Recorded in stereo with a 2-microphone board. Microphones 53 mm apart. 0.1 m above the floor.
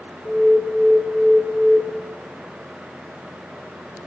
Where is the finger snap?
No finger snap in this recording.